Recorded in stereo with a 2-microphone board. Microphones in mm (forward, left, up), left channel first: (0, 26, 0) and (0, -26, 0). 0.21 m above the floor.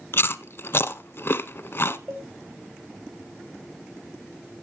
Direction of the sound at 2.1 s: 40° right (ahead or behind).